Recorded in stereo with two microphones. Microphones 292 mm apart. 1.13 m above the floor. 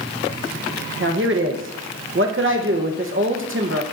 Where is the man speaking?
45° right (ahead or behind), 0.9 m.